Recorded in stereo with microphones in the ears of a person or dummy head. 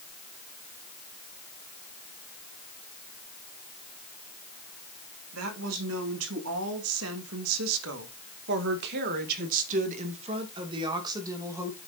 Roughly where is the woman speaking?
Right.